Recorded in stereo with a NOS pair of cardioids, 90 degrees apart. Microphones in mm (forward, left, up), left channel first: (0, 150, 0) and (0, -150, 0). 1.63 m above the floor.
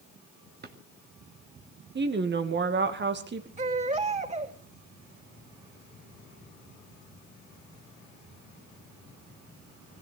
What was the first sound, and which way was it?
A drawer, 35° right.